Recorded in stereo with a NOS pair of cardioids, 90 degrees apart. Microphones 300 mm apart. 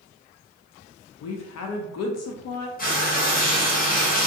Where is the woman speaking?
60° left, 0.5 m.